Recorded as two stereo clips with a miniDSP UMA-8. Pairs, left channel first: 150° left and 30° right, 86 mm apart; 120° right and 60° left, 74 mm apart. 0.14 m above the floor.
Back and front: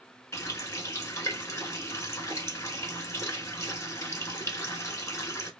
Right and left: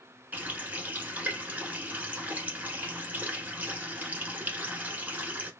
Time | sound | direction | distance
0.3 | a running tap | 115° left | 0.9 m